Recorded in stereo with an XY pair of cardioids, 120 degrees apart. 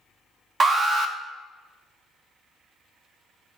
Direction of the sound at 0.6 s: 30° right.